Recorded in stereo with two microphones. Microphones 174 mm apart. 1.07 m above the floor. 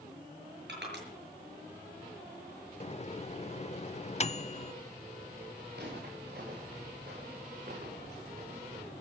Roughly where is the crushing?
Right.